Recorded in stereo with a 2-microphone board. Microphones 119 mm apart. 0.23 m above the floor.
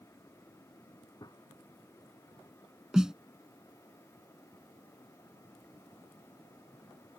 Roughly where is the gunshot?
Left.